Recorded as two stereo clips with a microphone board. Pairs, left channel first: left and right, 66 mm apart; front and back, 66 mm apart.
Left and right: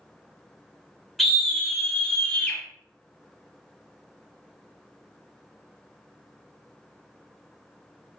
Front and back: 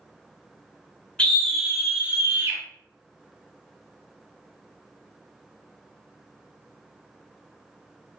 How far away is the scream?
About 0.9 m.